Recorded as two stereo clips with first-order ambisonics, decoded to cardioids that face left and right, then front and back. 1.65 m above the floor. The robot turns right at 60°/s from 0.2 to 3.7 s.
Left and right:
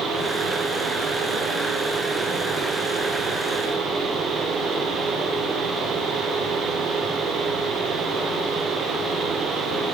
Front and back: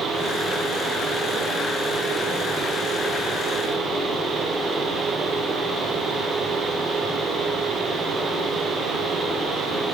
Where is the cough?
No cough in this recording.